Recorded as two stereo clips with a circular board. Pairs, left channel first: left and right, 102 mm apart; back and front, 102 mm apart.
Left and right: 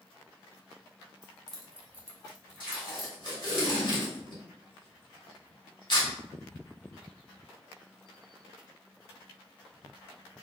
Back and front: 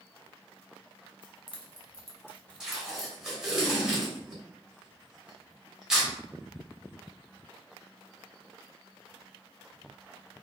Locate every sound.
1.2 s keys jangling: 165° left, 1.3 m; by 3.1 s 80° right, 1.4 m
2.6 s tape being pulled: 85° left, 1.6 m